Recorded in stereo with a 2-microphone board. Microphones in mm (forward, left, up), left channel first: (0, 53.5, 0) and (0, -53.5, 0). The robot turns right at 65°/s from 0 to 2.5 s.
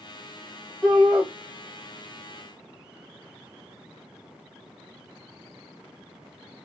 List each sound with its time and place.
0.8 s a shout: 5° left (ahead or behind), 1.2 m; by 1.3 s 10° right (ahead or behind), 1.2 m